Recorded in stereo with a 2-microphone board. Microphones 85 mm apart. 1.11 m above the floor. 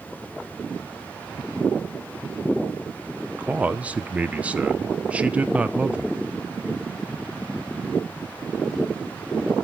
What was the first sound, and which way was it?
A man speaking, 15° right (ahead or behind).